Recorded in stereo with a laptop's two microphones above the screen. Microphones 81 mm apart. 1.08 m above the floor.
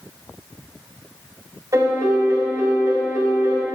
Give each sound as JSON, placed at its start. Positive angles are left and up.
{"t": 1.7, "sound": "a piano", "side_deg": -45, "distance_m": 3.0}